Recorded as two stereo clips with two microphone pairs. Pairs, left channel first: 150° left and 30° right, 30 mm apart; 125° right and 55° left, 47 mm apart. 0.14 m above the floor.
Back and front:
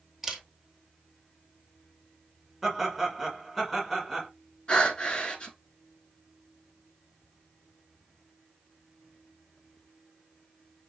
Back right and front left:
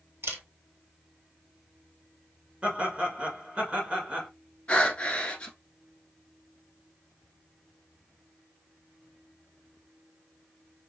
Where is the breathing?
175° right, 0.9 m.